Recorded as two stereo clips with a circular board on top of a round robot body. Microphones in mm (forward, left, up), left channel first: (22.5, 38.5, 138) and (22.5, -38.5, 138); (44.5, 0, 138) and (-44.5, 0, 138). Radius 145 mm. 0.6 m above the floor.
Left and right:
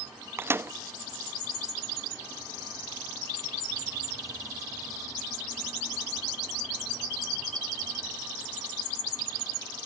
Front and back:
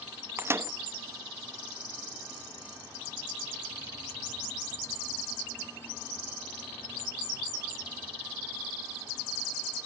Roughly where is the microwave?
Behind right.